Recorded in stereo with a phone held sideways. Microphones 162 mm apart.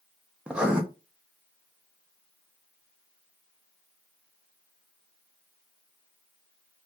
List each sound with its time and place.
0.5 s writing: 5° right (ahead or behind), 0.6 m